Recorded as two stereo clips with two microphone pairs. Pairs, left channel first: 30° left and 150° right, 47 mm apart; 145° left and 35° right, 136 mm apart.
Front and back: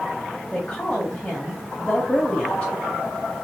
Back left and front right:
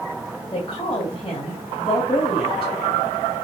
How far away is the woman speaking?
About 2 m.